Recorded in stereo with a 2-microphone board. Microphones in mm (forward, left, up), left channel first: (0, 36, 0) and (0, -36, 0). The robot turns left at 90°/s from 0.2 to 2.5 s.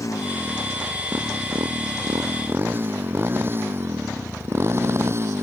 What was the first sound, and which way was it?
A motorcycle, 55° left (ahead or behind).